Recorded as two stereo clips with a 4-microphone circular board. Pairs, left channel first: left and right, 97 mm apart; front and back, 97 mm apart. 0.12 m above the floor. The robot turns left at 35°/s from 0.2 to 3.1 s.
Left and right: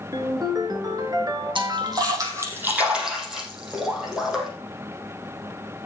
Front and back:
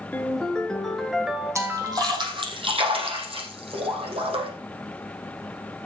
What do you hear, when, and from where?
0.1 s a ringtone: 65° right, 1.4 m; by 2.3 s 140° right, 1.4 m
1.6 s a splash: 120° right, 4 m; by 4.5 s 175° right, 4 m